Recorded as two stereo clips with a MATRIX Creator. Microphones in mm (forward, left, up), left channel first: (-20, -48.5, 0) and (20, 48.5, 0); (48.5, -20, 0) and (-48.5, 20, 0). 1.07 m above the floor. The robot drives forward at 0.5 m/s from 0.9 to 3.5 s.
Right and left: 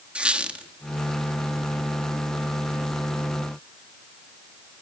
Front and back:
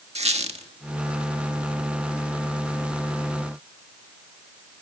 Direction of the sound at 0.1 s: 145° left.